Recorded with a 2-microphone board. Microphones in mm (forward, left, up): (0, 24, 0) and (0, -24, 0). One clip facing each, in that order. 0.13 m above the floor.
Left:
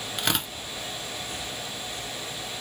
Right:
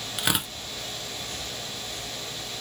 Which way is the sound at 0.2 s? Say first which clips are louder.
Right 1 dB; 5° right (ahead or behind).